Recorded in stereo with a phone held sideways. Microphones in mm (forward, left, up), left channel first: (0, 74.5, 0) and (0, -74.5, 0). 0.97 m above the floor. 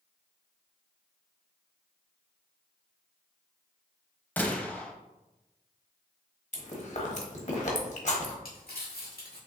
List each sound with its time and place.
4.4 s a gunshot: 10° left (ahead or behind), 0.8 m
6.5 s chewing: 55° left (ahead or behind), 1.0 m
8.4 s crumpling: 80° left, 1.6 m